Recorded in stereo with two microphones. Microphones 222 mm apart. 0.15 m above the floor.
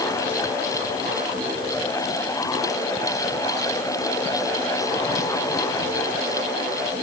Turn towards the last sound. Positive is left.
No sound to turn to.